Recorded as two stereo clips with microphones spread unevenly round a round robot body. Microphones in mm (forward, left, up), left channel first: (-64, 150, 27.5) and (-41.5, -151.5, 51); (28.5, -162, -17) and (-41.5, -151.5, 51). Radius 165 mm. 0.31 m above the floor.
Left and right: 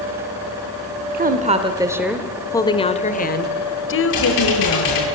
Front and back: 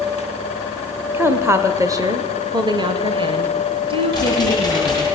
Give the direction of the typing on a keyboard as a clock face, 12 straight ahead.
9 o'clock.